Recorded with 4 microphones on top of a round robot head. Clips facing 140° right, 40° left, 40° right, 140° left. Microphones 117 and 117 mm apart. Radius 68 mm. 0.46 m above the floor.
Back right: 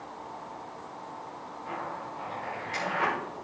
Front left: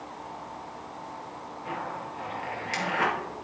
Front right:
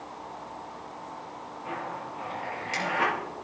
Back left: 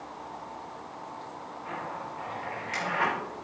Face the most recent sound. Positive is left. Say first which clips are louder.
# front left 2 dB, front right 2 dB
turn(degrees=20)